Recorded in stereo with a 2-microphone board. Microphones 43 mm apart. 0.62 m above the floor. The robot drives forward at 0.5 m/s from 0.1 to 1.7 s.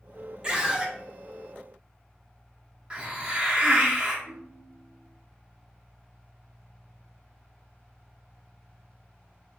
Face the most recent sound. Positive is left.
turn(degrees=-55)  # may be behind; listen again after turning